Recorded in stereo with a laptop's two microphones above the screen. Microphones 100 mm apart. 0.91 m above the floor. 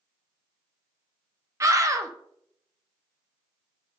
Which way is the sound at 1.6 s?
30° right (ahead or behind).